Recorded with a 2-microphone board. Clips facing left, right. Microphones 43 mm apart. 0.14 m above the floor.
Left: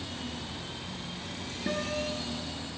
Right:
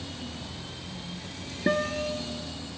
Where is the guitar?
45° right (ahead or behind), 1.0 m.